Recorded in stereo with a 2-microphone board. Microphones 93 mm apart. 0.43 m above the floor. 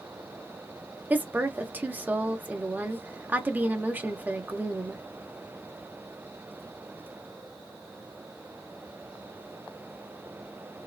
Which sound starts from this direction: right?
A woman speaking, at 1.1 s.